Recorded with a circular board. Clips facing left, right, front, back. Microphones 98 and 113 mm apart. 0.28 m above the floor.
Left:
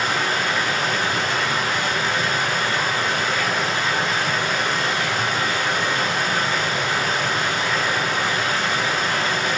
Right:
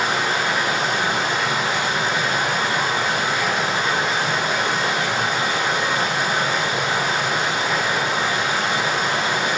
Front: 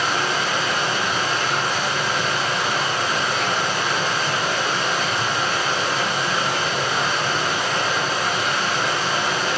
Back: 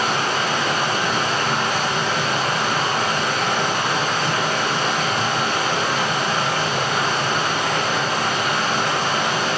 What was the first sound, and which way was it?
Running water, 155° right.